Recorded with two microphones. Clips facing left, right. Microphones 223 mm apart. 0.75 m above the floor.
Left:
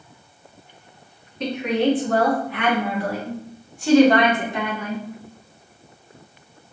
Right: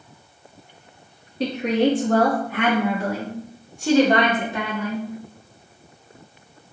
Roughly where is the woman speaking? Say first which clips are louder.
Right 1 dB; right.